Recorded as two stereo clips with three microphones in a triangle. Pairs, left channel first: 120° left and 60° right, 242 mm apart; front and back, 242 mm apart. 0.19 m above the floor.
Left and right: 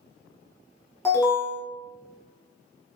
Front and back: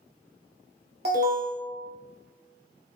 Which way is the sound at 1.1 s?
165° right.